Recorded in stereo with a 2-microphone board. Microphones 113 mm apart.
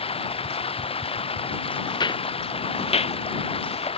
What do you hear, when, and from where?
0.0 s running water: 60° left (ahead or behind)
1.9 s footsteps: 40° left (ahead or behind); by 3.9 s 75° left (ahead or behind)